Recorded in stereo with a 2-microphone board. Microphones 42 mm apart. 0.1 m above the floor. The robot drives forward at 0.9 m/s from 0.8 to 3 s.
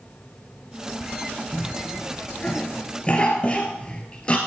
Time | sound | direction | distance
1.5 | a cough | 15° left (ahead or behind) | 3 m